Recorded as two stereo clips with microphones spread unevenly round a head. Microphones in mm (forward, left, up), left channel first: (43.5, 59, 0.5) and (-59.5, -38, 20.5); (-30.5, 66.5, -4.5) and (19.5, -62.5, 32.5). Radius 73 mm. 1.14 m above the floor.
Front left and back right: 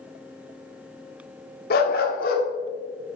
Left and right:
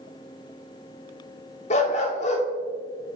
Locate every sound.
1.7 s a dog barking: 60° left, 1.1 m